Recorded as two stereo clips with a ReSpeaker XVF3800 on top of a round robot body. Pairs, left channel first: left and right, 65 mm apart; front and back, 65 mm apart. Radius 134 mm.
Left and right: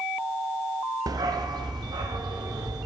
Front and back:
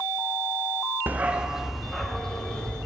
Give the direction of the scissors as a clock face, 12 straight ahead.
I don't hear scissors.